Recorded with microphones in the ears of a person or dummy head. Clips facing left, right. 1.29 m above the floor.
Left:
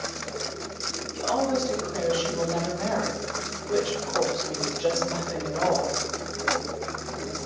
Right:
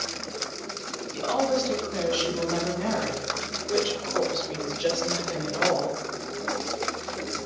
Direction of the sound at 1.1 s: 35° right (ahead or behind).